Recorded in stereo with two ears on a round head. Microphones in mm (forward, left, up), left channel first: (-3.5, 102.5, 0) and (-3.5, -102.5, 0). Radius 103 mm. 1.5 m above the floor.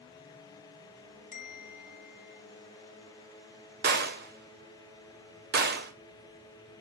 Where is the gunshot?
45° right (ahead or behind), 1.7 m.